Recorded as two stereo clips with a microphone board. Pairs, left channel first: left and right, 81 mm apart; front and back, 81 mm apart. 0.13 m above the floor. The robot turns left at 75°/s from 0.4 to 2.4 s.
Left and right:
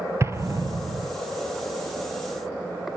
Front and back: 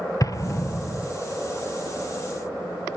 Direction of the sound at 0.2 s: 40° right.